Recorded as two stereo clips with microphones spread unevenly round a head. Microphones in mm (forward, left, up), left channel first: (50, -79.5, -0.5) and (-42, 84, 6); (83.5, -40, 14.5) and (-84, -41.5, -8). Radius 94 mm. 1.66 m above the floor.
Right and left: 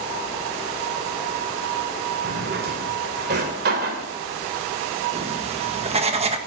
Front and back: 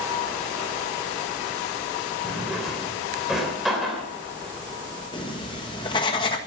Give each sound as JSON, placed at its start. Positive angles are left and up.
{"t": 2.2, "sound": "a drawer", "azimuth_deg": 85, "distance_m": 3.0}
{"t": 5.1, "sound": "writing", "azimuth_deg": 65, "distance_m": 1.6}